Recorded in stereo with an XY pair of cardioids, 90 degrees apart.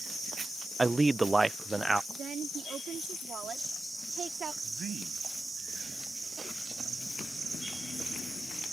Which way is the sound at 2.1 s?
65° right.